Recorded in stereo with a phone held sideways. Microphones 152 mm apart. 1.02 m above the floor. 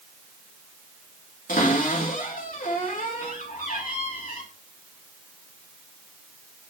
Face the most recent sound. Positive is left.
turn(degrees=70)  # may be behind; listen again after turning